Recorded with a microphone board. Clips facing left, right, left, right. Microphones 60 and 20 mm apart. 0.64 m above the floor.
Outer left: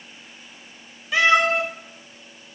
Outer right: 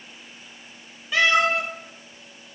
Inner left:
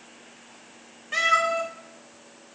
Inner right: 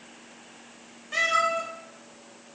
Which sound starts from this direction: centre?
A cat meowing, at 1.1 s.